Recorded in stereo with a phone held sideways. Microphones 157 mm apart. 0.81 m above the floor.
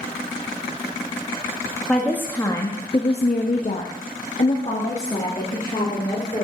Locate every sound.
1.9 s a woman speaking: 5° left (ahead or behind), 1.2 m; by 6.4 s 35° left (ahead or behind), 2 m